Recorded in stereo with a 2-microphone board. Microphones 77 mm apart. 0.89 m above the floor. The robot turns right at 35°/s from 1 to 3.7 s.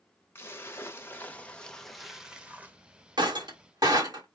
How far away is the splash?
About 0.8 m.